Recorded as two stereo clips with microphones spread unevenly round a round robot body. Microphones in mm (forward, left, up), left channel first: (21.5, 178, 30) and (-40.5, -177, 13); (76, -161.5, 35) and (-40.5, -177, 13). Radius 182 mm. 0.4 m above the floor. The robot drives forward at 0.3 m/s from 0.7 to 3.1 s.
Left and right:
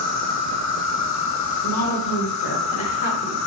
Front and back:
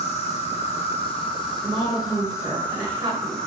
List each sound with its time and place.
0.0 s an insect: 45° left, 1.0 m; by 3.5 s 105° left, 0.8 m
1.6 s a woman speaking: 105° left, 1.5 m; by 3.4 s 125° left, 1.6 m